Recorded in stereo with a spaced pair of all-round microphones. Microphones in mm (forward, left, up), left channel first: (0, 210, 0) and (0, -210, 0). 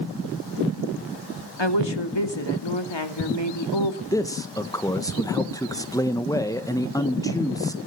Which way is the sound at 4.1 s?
10° left (ahead or behind).